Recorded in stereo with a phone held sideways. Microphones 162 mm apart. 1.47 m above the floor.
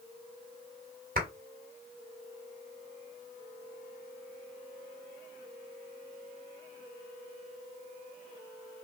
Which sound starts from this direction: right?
A clap, at 1.1 s.